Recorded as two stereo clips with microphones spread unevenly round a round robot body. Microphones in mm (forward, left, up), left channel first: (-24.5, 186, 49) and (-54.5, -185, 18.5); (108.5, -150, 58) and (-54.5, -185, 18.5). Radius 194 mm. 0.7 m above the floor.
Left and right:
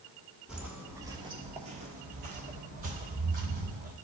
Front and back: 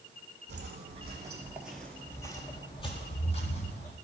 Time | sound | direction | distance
0.5 | footsteps | 170° left | 0.8 m